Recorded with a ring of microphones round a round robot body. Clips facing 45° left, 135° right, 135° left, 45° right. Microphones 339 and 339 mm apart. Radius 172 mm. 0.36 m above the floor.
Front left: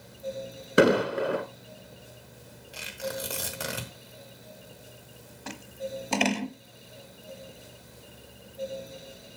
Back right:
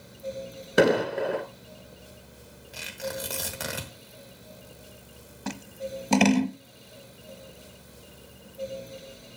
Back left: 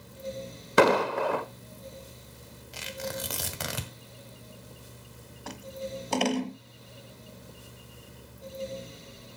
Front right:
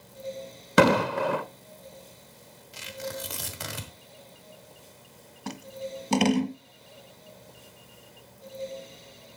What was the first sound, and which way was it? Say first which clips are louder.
An explosion: even, front right 1 dB; 40° right.